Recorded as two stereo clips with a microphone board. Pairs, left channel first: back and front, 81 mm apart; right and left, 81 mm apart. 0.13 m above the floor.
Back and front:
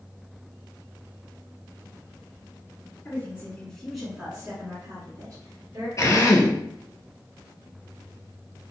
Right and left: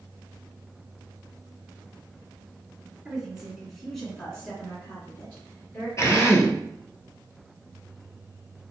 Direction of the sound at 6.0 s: 135° right.